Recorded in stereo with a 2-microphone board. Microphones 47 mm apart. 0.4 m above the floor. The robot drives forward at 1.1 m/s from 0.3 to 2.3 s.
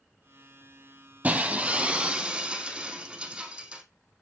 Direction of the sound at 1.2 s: 30° right (ahead or behind).